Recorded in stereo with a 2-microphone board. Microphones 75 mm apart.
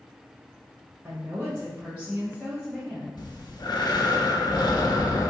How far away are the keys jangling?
I don't hear keys jangling.